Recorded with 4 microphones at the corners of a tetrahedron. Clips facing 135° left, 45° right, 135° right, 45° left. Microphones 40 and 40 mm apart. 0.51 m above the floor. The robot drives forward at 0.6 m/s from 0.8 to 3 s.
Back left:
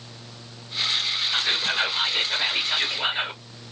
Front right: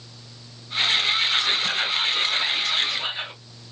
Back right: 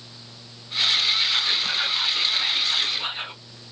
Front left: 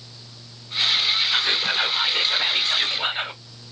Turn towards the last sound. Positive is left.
turn(degrees=90)